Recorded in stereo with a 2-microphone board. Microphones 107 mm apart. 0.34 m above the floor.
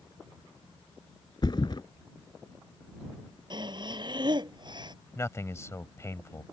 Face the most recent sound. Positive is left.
turn(degrees=25)  # may be behind; listen again after turning